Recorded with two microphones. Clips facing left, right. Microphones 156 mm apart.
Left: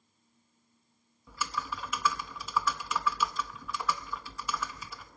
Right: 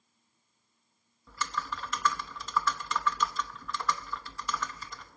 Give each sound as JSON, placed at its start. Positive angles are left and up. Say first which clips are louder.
{"t": 1.3, "sound": "typing on a keyboard", "louder": "even", "side_deg": 10, "distance_m": 0.7}